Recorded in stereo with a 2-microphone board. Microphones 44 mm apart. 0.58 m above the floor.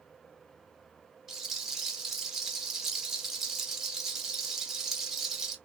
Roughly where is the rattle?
Centre.